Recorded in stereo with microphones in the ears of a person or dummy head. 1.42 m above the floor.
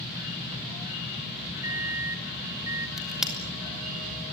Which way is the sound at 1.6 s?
15° right (ahead or behind).